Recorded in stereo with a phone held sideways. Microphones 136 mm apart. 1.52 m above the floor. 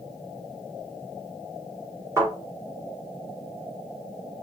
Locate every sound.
2.2 s a thud: 20° right (ahead or behind), 3 m